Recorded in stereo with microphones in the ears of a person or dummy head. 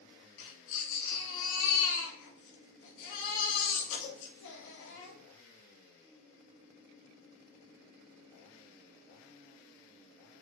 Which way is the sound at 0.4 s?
75° left (ahead or behind).